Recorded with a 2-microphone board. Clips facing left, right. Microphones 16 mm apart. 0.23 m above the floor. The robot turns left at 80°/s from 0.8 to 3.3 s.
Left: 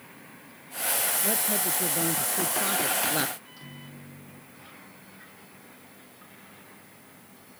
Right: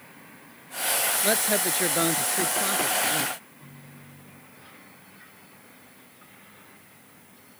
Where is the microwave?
75° left (ahead or behind).